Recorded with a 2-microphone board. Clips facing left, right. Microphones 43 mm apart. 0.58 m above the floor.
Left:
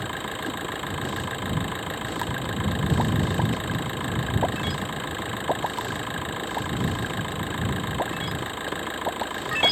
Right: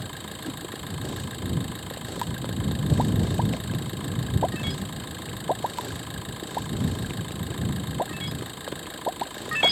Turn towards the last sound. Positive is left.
turn(degrees=40)  # may be behind; listen again after turning